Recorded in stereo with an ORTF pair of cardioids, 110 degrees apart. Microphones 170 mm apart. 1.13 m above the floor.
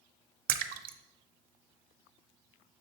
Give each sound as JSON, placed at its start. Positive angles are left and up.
{"t": 0.5, "sound": "a splash", "azimuth_deg": -60, "distance_m": 0.6}